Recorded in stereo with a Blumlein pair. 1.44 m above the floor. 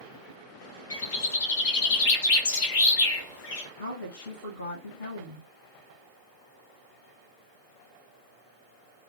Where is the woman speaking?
65° left, 1.0 m.